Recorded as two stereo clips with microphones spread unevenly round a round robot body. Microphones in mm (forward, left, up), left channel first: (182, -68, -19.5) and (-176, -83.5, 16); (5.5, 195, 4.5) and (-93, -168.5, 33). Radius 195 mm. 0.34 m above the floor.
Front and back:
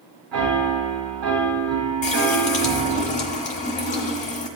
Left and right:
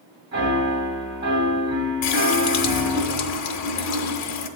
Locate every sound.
0.3 s a piano: 170° right, 3 m
2.0 s a running tap: 60° left, 0.8 m